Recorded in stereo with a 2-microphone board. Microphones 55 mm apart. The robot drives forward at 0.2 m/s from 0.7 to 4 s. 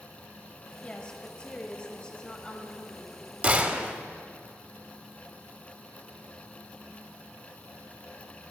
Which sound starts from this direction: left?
A woman speaking, at 0.8 s.